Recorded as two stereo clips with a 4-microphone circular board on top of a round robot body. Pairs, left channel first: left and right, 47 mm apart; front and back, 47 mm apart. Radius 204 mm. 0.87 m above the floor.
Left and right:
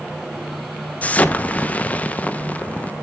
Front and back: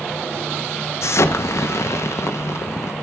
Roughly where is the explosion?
Ahead left.